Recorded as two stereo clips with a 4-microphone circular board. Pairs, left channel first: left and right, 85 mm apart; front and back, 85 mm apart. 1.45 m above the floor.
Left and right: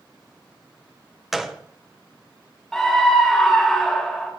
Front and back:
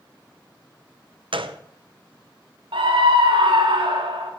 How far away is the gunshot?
About 0.9 m.